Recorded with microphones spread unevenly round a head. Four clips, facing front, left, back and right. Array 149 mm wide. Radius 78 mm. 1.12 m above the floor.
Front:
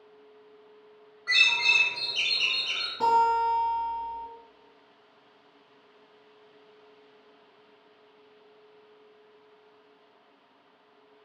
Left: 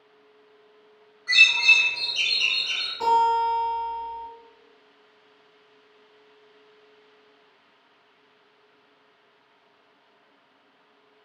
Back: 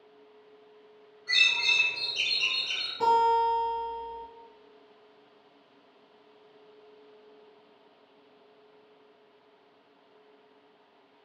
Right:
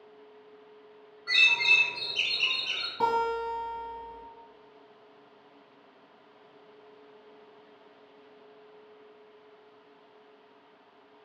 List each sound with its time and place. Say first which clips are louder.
1.3 s a bird: left 5 dB, front 3 dB; 10° right, 0.9 m
3.0 s a guitar: left 7 dB, even; 90° right, 1.7 m